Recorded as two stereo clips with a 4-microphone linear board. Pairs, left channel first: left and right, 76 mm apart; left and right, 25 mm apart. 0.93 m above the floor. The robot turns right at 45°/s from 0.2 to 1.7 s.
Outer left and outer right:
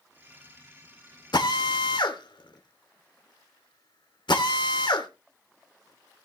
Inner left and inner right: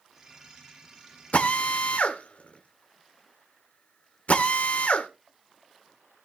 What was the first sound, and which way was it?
A drill, 75° left (ahead or behind).